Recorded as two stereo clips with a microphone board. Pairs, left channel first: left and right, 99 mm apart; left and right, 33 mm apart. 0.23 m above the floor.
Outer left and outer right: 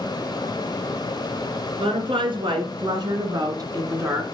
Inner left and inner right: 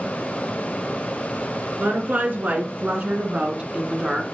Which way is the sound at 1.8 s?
60° right (ahead or behind).